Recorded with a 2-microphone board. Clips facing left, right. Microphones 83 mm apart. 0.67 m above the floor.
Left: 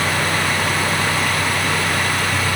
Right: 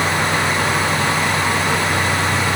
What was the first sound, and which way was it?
Only background noise.